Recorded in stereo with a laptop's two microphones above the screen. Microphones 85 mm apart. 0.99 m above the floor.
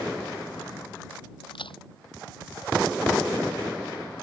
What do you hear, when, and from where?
1.5 s a crack: 80° left